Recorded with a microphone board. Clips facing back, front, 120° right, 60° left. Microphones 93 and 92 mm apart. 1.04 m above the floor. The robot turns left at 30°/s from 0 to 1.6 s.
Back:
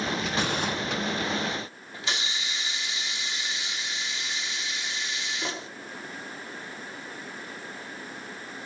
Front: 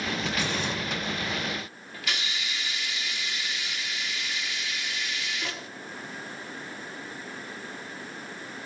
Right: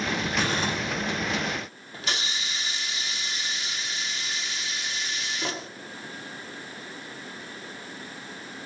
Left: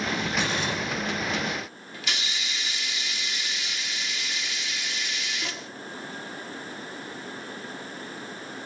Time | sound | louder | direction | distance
0.4 | crumpling | back 2 dB, right 3 dB | 165° right | 9 m
1.9 | a hiss | back 1 dB, right 2 dB | 135° right | 0.8 m